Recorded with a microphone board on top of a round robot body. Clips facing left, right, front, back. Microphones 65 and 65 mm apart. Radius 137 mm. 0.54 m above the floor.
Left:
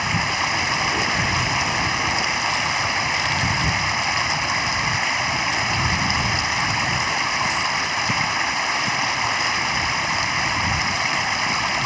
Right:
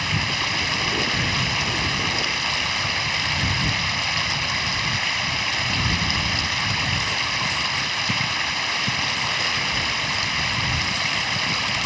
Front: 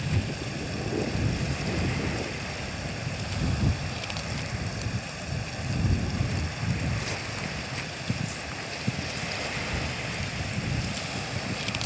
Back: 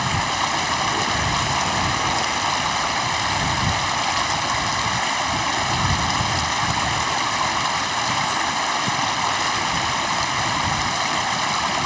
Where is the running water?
160° left.